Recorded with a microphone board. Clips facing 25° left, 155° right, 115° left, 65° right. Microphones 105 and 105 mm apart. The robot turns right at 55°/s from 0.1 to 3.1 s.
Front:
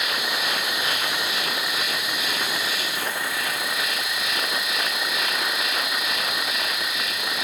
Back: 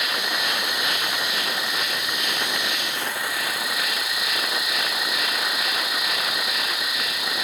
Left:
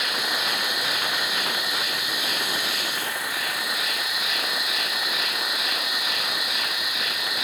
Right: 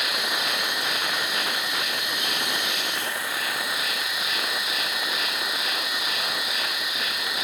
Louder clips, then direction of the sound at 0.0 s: Even, even; 5° left.